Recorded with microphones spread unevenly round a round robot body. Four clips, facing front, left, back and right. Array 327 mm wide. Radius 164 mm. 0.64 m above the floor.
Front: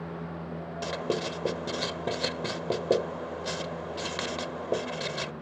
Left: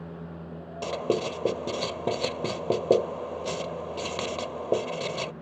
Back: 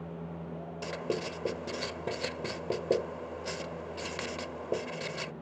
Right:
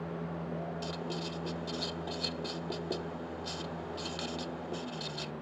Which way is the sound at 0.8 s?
80° left.